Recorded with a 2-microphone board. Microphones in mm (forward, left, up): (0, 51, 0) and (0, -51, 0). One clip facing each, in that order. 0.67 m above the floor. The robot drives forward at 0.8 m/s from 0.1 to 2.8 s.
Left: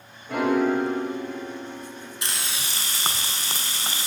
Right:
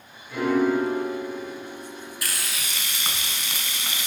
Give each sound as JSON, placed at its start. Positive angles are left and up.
{"t": 0.3, "sound": "a piano", "side_deg": 75, "distance_m": 3.0}
{"t": 2.2, "sound": "frying", "side_deg": 25, "distance_m": 1.2}